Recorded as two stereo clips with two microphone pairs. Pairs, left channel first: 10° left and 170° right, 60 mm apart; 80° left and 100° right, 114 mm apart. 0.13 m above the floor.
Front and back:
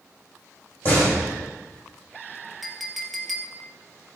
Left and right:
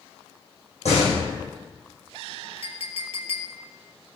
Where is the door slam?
70° left, 6 m.